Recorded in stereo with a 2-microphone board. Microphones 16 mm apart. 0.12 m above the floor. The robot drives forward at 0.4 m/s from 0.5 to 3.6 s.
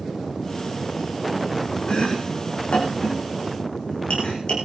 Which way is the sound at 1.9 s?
75° left (ahead or behind).